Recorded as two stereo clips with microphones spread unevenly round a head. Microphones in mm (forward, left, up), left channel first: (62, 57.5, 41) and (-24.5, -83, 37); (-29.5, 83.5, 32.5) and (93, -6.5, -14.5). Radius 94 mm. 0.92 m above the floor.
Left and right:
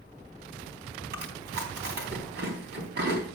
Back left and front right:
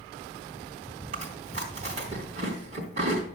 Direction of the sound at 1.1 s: 100° right.